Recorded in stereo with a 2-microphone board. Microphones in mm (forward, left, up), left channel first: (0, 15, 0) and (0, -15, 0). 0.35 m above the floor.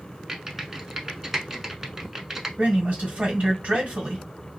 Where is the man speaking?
45° right (ahead or behind), 2 m.